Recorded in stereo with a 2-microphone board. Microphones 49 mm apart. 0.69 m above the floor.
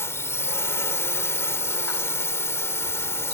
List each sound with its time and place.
0.0 s a drone: 65° left (ahead or behind)